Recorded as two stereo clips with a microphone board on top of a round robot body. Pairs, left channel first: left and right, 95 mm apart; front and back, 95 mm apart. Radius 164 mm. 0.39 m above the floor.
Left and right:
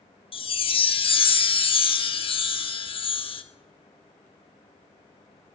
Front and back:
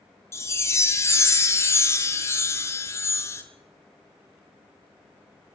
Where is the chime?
65° left, 0.6 m.